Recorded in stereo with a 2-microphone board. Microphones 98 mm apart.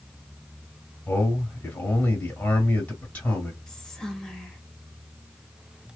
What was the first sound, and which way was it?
A man speaking, 15° left (ahead or behind).